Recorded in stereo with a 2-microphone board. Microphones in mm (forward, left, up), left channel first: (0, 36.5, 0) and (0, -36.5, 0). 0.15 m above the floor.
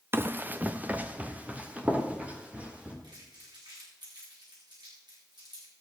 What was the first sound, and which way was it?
Running footsteps, 35° right (ahead or behind).